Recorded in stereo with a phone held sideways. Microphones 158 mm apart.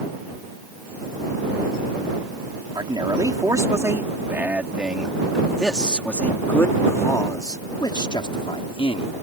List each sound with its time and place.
2.8 s a man speaking: 30° right (ahead or behind); by 9.1 s 35° left (ahead or behind)